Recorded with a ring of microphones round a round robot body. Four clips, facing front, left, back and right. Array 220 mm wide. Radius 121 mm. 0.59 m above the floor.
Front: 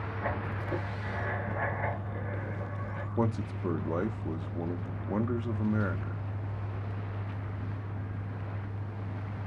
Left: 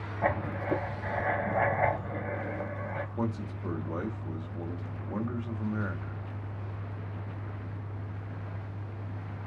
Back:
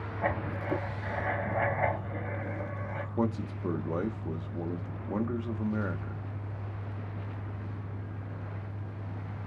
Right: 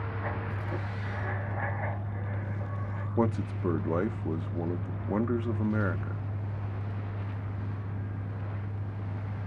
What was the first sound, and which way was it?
Writing, 110° left.